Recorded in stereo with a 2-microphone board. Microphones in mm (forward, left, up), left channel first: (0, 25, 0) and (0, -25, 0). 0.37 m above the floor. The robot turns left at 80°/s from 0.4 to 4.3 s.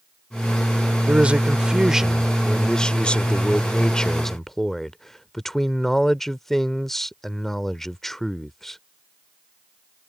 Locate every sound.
1.1 s a man speaking: 25° right (ahead or behind); by 8.8 s 5° left (ahead or behind)